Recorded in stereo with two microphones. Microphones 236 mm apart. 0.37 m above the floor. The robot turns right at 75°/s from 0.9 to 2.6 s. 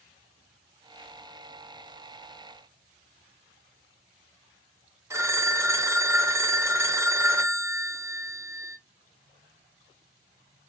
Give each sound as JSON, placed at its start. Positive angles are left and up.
{"t": 5.1, "sound": "a phone ringing", "side_deg": -10, "distance_m": 0.7}